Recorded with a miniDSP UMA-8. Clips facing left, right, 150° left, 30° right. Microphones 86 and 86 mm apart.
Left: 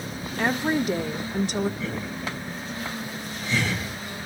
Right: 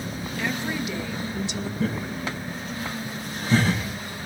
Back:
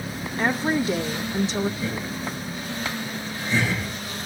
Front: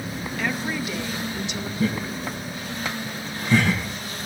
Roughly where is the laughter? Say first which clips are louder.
Right 3 dB, front 3 dB; ahead right.